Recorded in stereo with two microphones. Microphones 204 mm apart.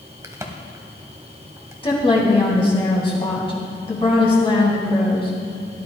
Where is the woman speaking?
25° left (ahead or behind), 2.5 m.